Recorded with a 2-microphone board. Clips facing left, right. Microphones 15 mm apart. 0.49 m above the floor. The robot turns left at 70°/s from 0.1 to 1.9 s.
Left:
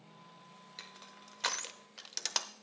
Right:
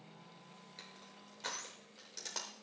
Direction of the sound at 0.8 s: 20° left (ahead or behind).